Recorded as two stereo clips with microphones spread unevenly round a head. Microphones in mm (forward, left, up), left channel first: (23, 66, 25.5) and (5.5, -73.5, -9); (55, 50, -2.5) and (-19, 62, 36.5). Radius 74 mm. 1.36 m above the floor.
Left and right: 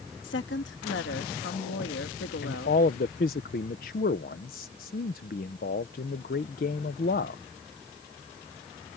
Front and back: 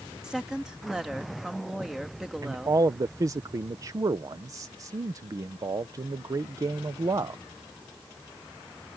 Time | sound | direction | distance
0.2 | a woman speaking | 85° left | ?
2.4 | a man speaking | 120° left | ?